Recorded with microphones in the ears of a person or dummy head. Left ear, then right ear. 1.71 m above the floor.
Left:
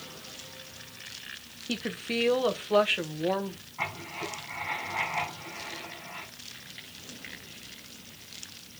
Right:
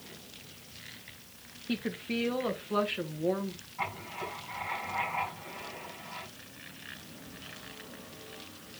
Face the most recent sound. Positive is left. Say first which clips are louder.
# left 2 dB
turn(degrees=0)  # may be behind; listen again after turning